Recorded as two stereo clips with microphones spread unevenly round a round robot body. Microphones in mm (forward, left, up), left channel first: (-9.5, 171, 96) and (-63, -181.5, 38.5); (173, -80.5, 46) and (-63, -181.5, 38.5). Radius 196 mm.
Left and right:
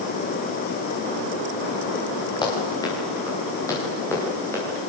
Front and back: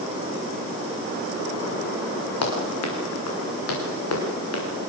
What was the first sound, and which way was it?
Running footsteps, 5° left.